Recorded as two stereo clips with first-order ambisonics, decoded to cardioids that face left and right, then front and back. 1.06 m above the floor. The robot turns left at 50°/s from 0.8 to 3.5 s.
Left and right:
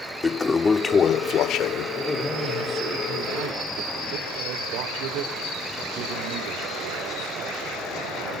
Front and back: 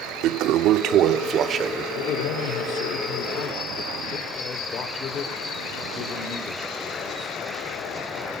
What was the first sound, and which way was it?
A toilet flushing, 165° left.